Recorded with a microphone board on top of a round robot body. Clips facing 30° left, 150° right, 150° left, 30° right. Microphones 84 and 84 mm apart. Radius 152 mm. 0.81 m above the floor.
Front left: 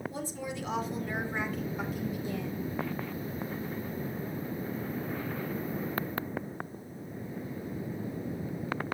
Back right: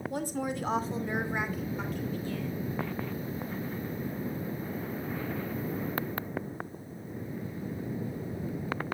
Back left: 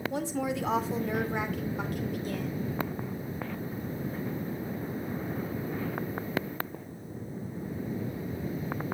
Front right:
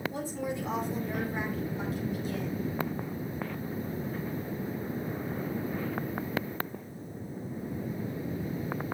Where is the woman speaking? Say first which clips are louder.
Back right 5 dB, back left 3 dB; 175° left, 3 m; by 2.6 s 95° left, 3.5 m.